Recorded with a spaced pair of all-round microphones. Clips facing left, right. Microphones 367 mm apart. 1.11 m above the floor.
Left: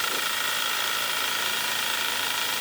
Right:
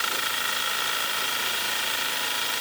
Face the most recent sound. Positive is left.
No sound to turn to.